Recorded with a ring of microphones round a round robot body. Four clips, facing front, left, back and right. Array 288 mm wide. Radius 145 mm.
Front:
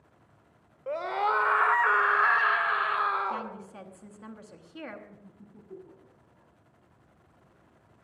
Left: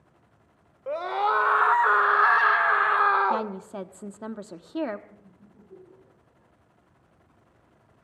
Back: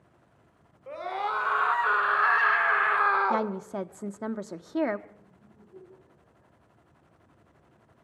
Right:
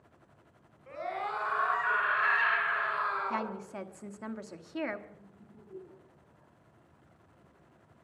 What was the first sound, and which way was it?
A scream, 60° left.